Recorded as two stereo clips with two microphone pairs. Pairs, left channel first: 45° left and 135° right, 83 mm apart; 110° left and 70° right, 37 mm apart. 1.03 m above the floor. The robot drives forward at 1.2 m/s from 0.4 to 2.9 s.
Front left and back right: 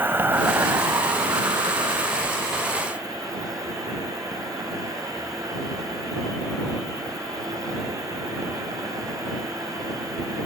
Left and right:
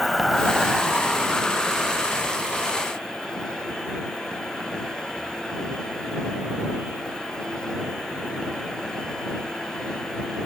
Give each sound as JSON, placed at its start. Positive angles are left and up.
{"t": 0.0, "sound": "an insect", "azimuth_deg": -165}